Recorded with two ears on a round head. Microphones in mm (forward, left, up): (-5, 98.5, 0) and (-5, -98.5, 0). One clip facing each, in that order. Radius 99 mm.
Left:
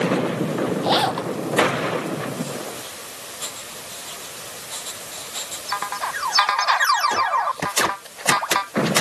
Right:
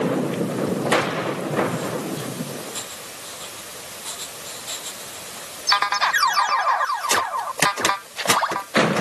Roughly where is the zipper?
Left.